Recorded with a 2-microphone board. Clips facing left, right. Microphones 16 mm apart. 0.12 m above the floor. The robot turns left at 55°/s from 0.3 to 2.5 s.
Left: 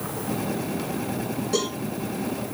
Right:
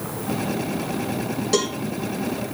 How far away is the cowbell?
About 5.5 m.